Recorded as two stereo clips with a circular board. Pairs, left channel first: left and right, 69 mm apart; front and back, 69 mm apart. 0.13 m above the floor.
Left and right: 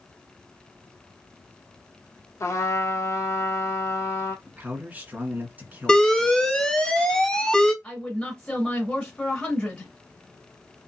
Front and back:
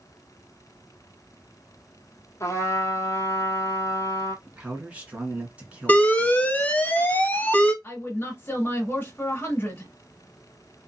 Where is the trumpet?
45° left, 1.2 m.